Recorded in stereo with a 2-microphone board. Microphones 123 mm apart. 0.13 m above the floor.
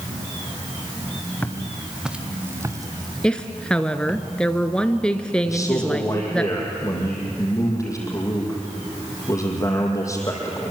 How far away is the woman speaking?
About 1.4 m.